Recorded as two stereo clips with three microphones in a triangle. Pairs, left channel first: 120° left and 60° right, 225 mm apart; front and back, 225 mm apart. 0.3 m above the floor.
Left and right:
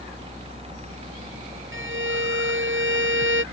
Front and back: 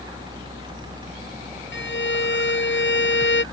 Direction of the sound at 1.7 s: 30° right.